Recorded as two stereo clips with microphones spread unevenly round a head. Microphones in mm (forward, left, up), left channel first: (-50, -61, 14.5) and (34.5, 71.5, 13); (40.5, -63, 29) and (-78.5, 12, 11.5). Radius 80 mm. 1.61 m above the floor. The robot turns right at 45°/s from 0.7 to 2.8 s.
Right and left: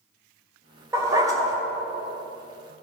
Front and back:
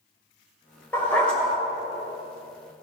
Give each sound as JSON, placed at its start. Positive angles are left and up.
{"t": 0.9, "sound": "a dog barking", "azimuth_deg": 10, "distance_m": 1.4}